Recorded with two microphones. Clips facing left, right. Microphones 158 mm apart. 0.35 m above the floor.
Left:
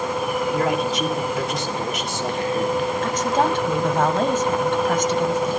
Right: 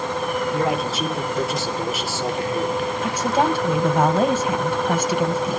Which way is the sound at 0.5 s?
5° right (ahead or behind).